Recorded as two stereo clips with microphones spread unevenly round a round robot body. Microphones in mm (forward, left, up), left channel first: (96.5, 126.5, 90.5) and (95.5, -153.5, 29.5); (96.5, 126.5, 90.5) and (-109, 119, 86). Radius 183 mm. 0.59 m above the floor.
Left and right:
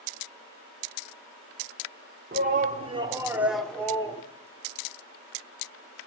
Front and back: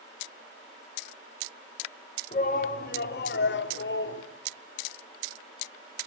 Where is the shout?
50° right, 2 m; by 4.2 s 10° left, 2.5 m.